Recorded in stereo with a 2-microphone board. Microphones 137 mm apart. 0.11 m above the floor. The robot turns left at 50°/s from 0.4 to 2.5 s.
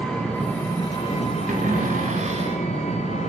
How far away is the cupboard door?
About 6 m.